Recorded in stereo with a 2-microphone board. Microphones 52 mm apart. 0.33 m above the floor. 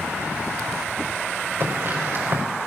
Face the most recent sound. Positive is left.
turn(degrees=-55)  # may be behind; listen again after turning